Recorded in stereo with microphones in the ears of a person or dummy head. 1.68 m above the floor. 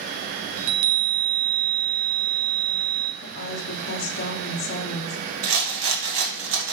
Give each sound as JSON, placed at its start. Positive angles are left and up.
{"t": 0.6, "sound": "a chime", "side_deg": -75, "distance_m": 0.7}
{"t": 3.2, "sound": "a woman speaking", "side_deg": 50, "distance_m": 1.0}
{"t": 5.4, "sound": "a rattle", "side_deg": -85, "distance_m": 2.0}